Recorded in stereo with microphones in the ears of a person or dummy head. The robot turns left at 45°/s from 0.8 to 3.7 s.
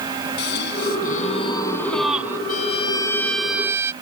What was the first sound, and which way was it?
A gasp, 55° left.